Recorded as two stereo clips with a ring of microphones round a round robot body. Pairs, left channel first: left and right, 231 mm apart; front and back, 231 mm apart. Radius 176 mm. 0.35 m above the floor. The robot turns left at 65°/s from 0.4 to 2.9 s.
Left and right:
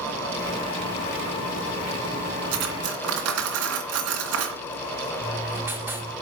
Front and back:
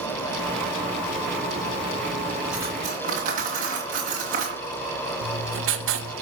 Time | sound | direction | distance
2.5 | cutlery clinking | 90° right | 2.5 m
5.2 | writing | 170° right | 1.9 m